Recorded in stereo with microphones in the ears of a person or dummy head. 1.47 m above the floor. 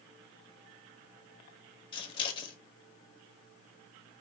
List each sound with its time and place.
1.9 s scissors: 25° left (ahead or behind), 1.0 m